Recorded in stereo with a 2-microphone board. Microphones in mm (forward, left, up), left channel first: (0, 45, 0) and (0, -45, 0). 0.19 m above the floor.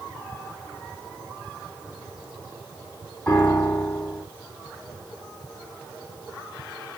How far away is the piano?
About 1.6 m.